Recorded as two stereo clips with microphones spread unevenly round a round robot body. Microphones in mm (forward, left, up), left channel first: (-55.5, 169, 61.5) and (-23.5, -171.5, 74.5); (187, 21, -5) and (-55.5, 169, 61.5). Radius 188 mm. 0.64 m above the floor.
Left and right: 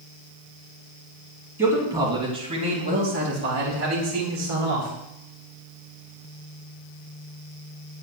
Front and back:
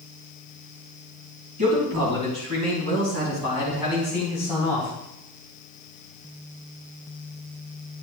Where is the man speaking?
165° right, 5 m; by 4.9 s 115° right, 3.5 m.